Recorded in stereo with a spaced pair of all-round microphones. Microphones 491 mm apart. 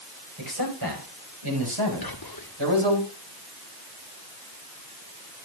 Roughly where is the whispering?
Left.